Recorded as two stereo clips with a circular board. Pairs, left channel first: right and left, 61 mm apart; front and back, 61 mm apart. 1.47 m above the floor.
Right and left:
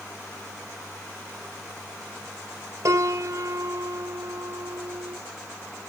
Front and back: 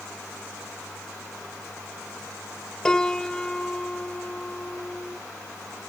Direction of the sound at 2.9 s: 75° left.